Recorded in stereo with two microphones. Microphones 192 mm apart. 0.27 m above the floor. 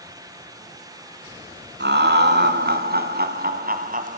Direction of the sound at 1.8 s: 65° right (ahead or behind).